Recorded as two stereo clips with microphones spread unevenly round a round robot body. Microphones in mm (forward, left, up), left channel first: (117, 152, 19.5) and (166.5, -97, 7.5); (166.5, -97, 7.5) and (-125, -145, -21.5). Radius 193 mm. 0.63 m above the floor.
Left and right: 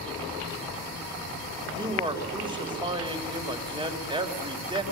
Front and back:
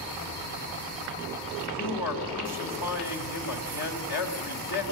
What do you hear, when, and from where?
1.7 s a man speaking: 10° right, 3.5 m